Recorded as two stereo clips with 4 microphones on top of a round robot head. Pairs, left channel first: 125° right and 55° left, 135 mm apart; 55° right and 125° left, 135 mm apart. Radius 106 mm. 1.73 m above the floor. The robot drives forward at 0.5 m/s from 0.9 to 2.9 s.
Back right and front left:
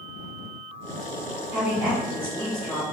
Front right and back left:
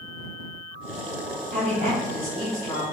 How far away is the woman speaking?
About 1.5 m.